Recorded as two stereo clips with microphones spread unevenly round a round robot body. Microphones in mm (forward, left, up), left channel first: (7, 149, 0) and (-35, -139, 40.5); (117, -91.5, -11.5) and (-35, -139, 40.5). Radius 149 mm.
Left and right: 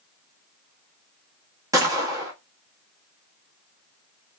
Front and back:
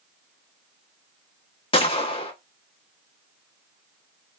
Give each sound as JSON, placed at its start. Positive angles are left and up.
{"t": 1.7, "sound": "a gunshot", "azimuth_deg": -15, "distance_m": 1.2}